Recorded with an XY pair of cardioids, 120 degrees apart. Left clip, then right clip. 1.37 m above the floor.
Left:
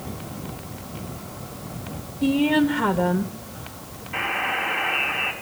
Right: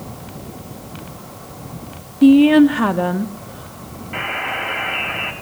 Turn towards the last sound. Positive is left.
turn(degrees=-35)